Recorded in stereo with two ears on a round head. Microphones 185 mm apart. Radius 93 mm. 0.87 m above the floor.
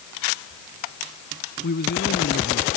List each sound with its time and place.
1.6 s a man speaking: 50° left (ahead or behind)